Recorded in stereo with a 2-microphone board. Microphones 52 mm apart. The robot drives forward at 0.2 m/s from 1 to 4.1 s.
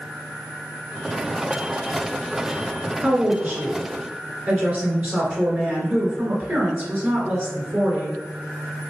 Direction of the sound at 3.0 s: 30° right (ahead or behind).